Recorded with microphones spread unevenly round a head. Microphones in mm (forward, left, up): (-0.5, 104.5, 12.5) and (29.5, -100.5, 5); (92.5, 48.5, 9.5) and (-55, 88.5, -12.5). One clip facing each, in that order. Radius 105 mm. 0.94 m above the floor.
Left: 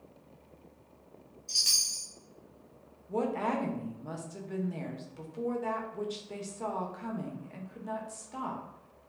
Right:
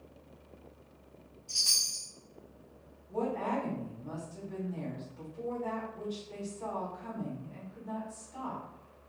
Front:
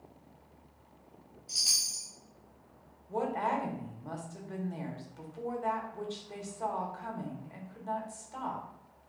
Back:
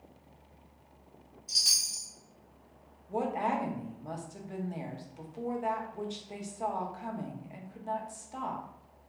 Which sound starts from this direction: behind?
A chime, at 1.5 s.